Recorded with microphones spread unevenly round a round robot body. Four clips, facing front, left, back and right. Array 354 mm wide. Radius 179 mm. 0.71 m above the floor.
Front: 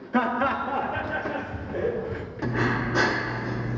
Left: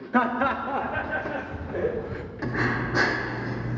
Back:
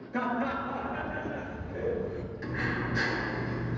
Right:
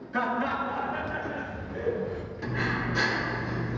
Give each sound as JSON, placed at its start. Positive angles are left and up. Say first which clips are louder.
{"t": 0.1, "sound": "laughter", "louder": "left 5 dB, front 7 dB", "azimuth_deg": 40, "distance_m": 1.0}
{"t": 2.4, "sound": "breathing", "louder": "left 4 dB, front 8 dB", "azimuth_deg": 25, "distance_m": 1.1}